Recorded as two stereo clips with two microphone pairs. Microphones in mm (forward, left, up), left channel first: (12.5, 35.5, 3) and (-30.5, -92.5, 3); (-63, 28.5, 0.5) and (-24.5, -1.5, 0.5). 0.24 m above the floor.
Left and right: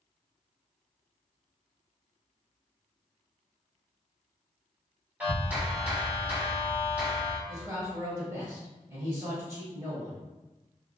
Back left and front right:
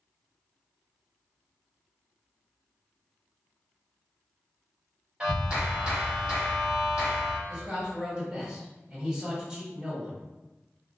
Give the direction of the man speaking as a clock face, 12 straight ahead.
3 o'clock.